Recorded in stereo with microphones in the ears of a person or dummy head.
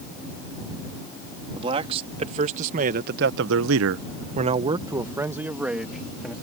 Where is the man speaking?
30° right (ahead or behind); by 6.3 s 5° right (ahead or behind).